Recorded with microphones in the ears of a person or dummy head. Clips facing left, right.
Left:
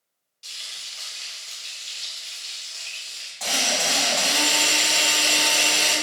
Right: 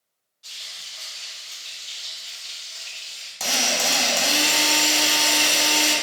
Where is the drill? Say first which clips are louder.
Right 1 dB; 45° right (ahead or behind), 0.8 m.